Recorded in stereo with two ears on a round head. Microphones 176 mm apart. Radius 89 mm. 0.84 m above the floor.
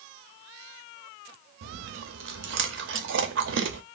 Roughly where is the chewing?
Right.